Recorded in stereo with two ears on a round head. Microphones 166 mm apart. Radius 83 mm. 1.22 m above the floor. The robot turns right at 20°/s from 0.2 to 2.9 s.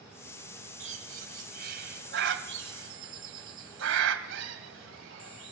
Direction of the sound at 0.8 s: 40° right (ahead or behind).